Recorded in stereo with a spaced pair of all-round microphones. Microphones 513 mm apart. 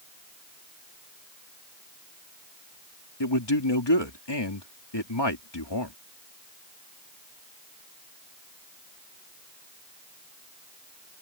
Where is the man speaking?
55° left (ahead or behind).